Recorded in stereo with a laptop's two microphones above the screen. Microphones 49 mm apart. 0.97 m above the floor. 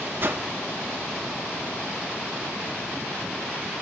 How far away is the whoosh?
About 1.7 m.